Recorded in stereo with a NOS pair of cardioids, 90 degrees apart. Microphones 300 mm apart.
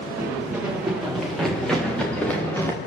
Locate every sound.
0.2 s running footsteps: 5° right, 8.5 m; by 2.8 s 5° left, 8 m